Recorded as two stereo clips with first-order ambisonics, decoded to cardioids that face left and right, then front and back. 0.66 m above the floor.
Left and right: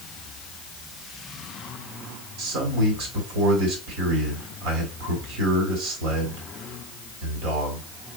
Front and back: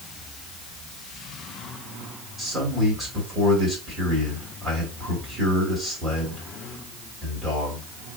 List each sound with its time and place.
2.4 s a man speaking: 105° right, 3 m